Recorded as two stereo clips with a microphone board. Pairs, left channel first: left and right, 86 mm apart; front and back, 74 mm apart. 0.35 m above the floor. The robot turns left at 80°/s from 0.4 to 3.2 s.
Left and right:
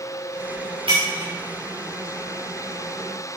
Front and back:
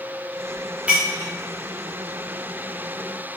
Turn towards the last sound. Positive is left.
turn(degrees=70)